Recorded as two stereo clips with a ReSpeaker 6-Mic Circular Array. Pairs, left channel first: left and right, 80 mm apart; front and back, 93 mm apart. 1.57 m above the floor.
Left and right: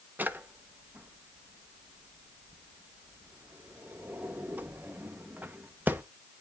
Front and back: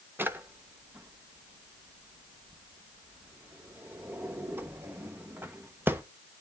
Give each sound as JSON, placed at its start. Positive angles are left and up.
{"t": 0.2, "sound": "a drawer", "azimuth_deg": -135, "distance_m": 0.7}